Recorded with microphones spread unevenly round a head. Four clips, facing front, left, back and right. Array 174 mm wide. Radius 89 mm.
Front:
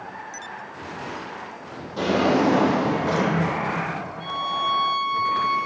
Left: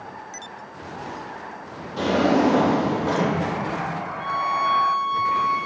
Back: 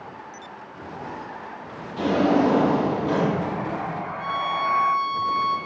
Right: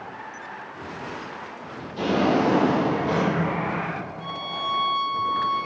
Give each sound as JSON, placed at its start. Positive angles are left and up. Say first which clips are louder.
{"t": 2.0, "sound": "a drawer", "louder": "left 2 dB, even", "azimuth_deg": 35, "distance_m": 3.5}
{"t": 4.2, "sound": "a violin", "louder": "left 12 dB, back 1 dB", "azimuth_deg": 115, "distance_m": 0.8}